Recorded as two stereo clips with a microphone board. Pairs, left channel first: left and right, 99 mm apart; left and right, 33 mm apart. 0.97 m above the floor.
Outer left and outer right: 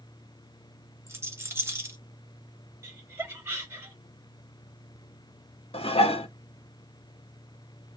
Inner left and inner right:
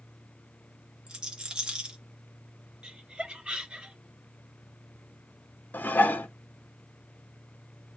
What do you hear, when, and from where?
1.1 s a rattle: 25° right (ahead or behind), 1.6 m
2.8 s laughter: 30° right (ahead or behind), 2.5 m
5.7 s dishes clattering: 75° left (ahead or behind), 0.9 m